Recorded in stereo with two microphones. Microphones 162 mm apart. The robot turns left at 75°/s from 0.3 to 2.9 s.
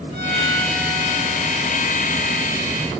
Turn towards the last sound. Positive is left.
turn(degrees=-155)